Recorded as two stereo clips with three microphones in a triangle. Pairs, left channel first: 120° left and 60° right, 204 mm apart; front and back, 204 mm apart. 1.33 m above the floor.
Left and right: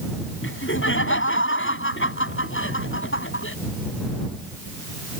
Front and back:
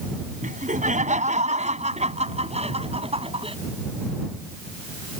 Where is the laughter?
130° left; by 3.6 s 120° left.